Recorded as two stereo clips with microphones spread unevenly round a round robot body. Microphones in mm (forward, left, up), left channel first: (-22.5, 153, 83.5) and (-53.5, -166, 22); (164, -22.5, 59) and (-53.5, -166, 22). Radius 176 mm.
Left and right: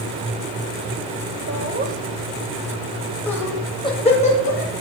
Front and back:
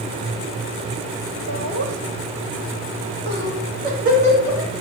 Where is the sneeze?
I don't hear a sneeze.